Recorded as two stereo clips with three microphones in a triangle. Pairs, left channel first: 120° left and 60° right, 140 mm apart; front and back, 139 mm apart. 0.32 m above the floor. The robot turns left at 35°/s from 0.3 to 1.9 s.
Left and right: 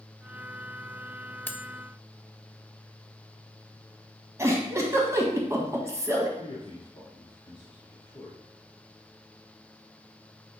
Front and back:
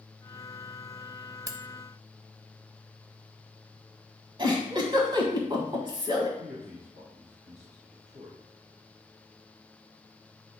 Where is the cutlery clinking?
175° left, 0.6 m; by 1.6 s 170° left, 0.6 m.